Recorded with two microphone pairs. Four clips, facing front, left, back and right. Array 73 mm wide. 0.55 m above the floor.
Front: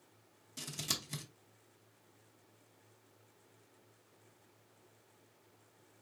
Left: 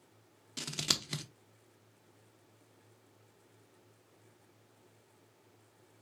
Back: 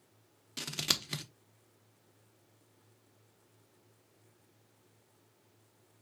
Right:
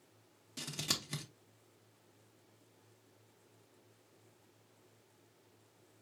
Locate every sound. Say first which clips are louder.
0.6 s scissors: left 3 dB, back 6 dB; 155° left, 0.7 m